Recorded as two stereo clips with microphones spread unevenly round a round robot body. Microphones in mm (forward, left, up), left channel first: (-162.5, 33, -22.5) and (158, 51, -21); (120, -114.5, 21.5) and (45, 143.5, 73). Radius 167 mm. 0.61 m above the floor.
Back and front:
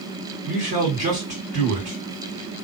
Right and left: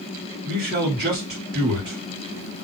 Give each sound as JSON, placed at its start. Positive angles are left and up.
{"t": 0.5, "sound": "a man speaking", "azimuth_deg": 70, "distance_m": 1.9}